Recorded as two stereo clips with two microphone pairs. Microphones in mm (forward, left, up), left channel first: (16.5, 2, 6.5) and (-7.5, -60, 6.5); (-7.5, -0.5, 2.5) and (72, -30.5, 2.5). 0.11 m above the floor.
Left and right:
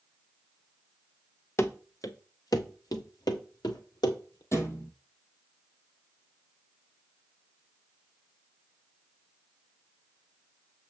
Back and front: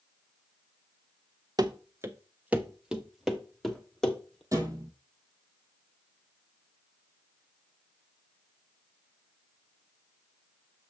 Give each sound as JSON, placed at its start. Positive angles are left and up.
{"t": 1.6, "sound": "running footsteps", "azimuth_deg": 20, "distance_m": 0.9}
{"t": 4.5, "sound": "a thud", "azimuth_deg": 25, "distance_m": 1.5}